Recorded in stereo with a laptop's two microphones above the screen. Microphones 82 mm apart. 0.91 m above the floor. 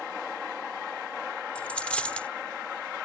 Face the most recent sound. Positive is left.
turn(degrees=15)  # may be behind; listen again after turning